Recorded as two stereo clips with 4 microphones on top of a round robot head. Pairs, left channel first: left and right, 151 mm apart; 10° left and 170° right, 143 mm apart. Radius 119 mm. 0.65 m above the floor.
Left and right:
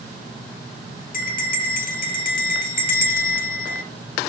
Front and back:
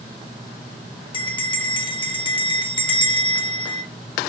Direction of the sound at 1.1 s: 65° left.